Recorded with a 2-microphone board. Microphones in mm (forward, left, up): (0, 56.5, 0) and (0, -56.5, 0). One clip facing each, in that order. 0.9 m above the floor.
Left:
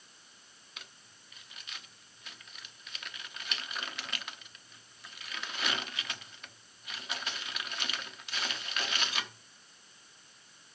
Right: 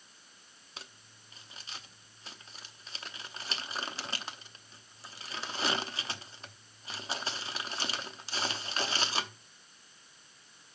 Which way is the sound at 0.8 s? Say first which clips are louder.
Right 3 dB; 30° right (ahead or behind).